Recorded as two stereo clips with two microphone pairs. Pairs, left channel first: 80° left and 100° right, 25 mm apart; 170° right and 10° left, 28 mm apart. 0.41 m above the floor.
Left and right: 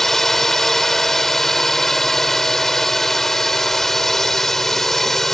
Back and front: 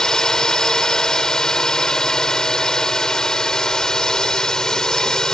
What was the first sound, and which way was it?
A drone, 145° left.